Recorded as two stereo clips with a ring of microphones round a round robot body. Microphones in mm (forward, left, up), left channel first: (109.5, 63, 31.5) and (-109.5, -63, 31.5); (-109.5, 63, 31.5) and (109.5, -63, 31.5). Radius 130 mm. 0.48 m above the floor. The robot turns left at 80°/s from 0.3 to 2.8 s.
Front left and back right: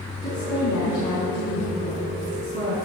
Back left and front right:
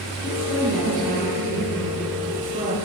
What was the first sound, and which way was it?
A woman speaking, 85° left.